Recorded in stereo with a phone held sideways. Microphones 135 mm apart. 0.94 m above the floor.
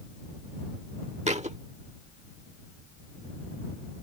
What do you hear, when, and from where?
1.3 s a thud: 55° right (ahead or behind)